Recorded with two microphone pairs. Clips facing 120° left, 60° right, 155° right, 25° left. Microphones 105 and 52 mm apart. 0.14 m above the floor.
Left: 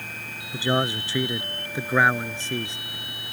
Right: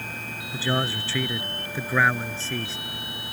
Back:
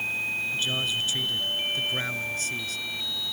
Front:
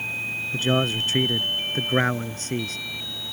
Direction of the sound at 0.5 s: 50° left.